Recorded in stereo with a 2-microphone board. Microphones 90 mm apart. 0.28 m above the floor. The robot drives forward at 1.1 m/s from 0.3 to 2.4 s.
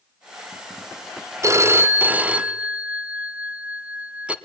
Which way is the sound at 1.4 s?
35° right (ahead or behind).